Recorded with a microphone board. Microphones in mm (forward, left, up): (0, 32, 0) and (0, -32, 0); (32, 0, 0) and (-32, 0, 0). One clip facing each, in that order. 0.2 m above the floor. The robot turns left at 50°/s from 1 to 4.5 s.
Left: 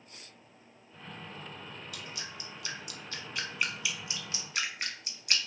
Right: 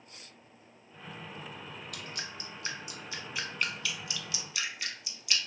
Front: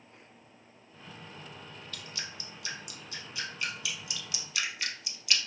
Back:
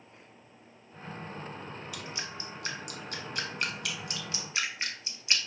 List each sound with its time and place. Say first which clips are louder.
1.9 s dripping: right 1 dB, back 1 dB; 105° right, 0.5 m; by 5.4 s 125° left, 0.5 m